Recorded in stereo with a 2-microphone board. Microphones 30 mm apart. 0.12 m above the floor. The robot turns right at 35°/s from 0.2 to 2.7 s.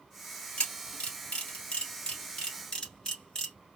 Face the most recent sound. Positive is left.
turn(degrees=25)  # may be behind; listen again after turning